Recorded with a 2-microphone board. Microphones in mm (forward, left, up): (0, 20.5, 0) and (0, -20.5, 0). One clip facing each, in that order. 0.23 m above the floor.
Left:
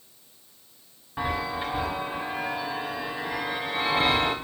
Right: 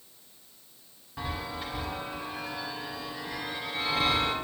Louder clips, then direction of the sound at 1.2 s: Left 7 dB; 25° left (ahead or behind).